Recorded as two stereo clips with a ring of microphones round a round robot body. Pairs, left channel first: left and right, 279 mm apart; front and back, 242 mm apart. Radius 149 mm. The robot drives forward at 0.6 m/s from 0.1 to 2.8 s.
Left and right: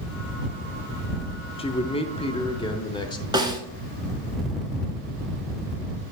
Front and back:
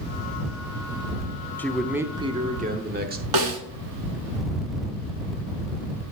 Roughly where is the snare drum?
Behind.